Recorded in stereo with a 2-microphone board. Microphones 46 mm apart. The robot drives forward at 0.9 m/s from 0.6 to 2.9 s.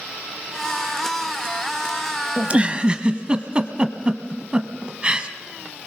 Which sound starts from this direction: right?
A giggle, at 2.4 s.